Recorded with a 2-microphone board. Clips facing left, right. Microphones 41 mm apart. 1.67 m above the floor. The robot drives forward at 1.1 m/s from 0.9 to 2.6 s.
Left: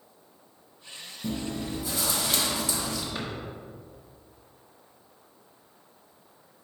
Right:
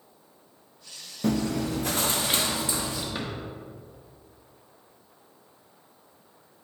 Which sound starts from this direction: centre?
A drawer, at 3.1 s.